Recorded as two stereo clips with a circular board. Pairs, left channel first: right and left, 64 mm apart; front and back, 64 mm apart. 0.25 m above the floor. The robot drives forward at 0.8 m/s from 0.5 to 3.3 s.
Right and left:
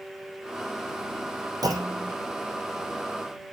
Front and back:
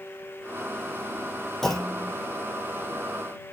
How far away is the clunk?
About 5.5 m.